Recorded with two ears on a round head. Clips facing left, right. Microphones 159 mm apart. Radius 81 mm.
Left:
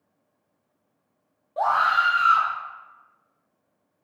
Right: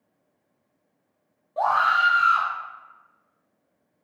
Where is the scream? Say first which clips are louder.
Even; centre (ahead or behind), 0.8 m.